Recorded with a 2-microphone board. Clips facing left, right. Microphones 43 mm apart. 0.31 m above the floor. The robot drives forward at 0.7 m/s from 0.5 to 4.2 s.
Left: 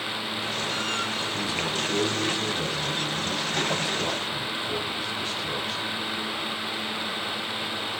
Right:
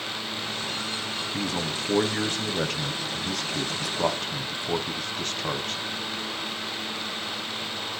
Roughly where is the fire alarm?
No fire alarm in this recording.